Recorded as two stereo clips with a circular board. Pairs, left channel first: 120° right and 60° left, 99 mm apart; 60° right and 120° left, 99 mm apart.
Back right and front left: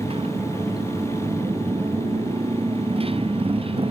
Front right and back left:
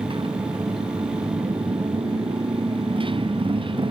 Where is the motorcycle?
85° left.